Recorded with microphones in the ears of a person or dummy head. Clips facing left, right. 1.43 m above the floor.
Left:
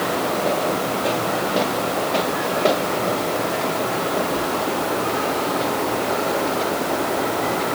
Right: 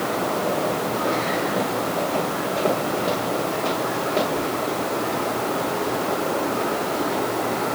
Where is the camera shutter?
I don't hear a camera shutter.